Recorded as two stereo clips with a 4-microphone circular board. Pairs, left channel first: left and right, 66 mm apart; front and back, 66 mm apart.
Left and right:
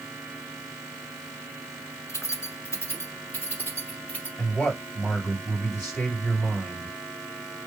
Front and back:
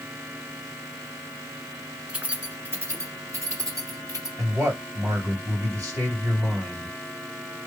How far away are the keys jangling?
About 1.2 m.